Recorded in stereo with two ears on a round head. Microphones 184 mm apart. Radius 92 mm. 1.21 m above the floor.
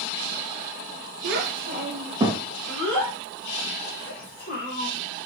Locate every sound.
1.2 s a child speaking: 55° right (ahead or behind), 0.9 m; by 4.9 s 50° left (ahead or behind), 1.5 m